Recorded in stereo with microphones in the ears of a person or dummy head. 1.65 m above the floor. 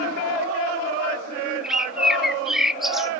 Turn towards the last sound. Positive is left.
turn(degrees=0)  # may be behind; listen again after turning